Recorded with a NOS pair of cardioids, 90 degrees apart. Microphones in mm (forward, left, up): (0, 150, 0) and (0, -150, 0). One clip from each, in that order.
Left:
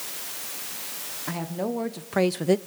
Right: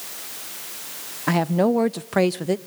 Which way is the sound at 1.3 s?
65° right.